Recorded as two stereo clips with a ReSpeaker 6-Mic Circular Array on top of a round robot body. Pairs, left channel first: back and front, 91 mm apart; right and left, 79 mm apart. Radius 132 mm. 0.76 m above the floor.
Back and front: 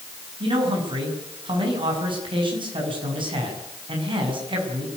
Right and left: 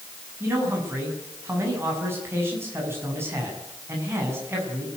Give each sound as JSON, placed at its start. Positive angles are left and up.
{"t": 0.4, "sound": "a man speaking", "azimuth_deg": 30, "distance_m": 7.0}